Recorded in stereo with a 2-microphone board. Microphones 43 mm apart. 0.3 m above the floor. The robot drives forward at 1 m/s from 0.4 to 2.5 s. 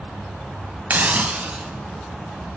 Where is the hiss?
45° right (ahead or behind), 0.5 m; by 1.7 s 20° right (ahead or behind), 1.2 m.